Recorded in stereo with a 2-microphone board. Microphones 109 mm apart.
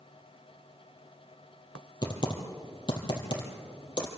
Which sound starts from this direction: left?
Typing on a keyboard, at 2.0 s.